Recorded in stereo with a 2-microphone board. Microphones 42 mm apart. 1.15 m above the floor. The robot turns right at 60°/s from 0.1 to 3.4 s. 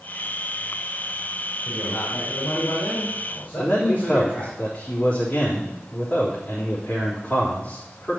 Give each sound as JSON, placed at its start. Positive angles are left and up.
{"t": 1.6, "sound": "a man speaking", "azimuth_deg": 40, "distance_m": 5.0}
{"t": 3.6, "sound": "a man speaking", "side_deg": 40, "distance_m": 3.5}